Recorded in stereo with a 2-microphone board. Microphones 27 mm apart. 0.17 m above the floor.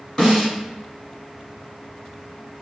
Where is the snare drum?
25° left (ahead or behind), 1.7 m.